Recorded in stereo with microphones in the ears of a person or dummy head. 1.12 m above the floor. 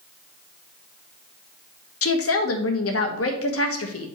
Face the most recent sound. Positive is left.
turn(degrees=70)  # may be behind; listen again after turning